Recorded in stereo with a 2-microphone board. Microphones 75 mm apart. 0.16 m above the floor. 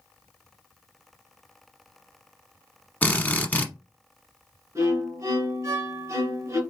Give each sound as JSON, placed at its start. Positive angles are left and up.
{"t": 3.0, "sound": "a drill", "side_deg": 25, "distance_m": 0.8}
{"t": 4.8, "sound": "a violin", "side_deg": -45, "distance_m": 2.0}